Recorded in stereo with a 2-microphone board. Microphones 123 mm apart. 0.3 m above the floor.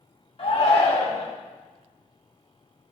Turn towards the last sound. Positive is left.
turn(degrees=50)  # may be behind; listen again after turning